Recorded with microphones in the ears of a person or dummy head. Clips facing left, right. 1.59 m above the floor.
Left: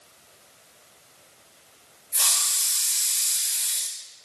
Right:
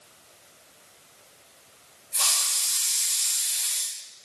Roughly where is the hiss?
Centre.